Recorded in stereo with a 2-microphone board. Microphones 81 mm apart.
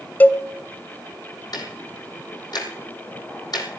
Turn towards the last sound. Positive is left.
turn(degrees=55)  # may be behind; listen again after turning